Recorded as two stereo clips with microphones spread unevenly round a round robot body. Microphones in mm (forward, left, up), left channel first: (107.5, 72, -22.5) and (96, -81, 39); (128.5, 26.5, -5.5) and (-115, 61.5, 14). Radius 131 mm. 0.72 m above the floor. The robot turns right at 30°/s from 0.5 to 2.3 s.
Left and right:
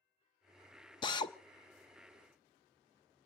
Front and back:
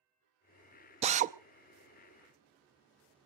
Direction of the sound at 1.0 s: 110° left.